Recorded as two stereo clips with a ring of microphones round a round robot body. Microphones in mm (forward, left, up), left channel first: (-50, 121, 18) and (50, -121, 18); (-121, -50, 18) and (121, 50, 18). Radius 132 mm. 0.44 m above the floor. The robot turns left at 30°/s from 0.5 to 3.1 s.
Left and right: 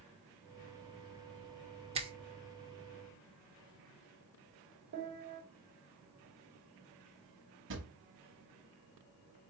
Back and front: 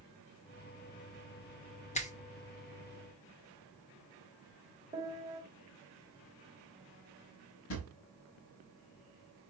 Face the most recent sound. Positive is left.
turn(degrees=-115)